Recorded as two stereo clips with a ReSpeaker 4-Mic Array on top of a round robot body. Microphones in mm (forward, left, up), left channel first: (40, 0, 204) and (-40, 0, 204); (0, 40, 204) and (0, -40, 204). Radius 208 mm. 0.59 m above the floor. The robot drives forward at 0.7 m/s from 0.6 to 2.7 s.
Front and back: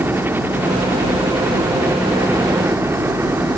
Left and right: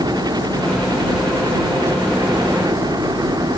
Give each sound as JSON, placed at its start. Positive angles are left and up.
{"t": 0.0, "sound": "a helicopter", "azimuth_deg": -115}